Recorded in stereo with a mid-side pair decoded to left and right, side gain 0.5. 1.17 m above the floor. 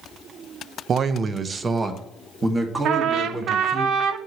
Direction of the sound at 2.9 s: 65° right.